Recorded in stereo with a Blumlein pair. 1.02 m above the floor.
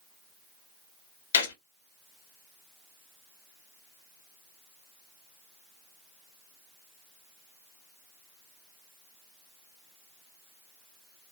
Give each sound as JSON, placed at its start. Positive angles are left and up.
{"t": 1.3, "sound": "a gunshot", "azimuth_deg": 70, "distance_m": 1.1}